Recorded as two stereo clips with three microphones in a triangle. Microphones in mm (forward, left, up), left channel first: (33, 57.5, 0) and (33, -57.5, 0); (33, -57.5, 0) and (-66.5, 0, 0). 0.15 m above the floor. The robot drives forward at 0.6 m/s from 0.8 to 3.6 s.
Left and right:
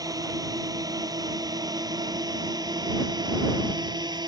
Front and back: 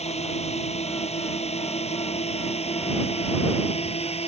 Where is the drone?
35° right; by 4.3 s 40° right.